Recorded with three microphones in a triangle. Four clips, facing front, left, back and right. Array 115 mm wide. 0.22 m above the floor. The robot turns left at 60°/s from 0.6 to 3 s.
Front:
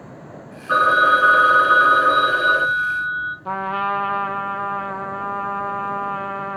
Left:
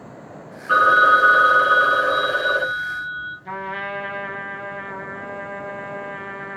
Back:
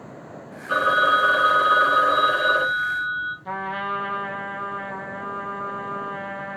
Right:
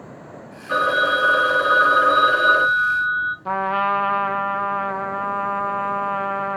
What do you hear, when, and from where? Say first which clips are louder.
0.7 s a phone ringing: left 5 dB, front 4 dB; 50° left, 1.6 m; by 3.4 s 90° right, 1.6 m
3.5 s a trumpet: right 9 dB, front 7 dB; 60° right, 0.5 m